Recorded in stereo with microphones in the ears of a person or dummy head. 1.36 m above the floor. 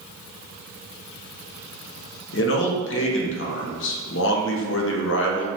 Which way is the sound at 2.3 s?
65° left (ahead or behind).